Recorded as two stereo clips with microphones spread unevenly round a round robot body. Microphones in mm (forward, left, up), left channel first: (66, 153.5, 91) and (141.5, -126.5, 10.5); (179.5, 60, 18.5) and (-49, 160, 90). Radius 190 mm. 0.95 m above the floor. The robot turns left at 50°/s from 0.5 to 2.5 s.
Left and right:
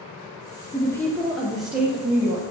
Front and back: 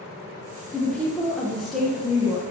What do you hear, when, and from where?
0.7 s a woman speaking: straight ahead, 0.6 m; by 2.4 s 85° right, 0.6 m